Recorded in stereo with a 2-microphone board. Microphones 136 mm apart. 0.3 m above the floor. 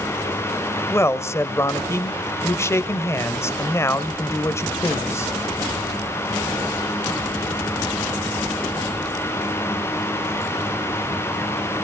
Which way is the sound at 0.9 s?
20° left (ahead or behind).